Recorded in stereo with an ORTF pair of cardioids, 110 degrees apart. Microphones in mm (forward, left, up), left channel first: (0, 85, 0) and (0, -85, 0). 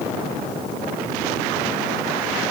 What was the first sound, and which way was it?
Only background noise.